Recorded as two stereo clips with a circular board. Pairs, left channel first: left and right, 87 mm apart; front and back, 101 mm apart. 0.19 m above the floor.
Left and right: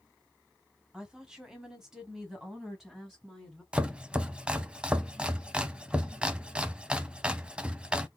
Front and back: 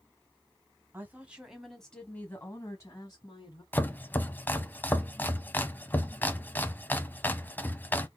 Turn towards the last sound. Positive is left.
turn(degrees=-35)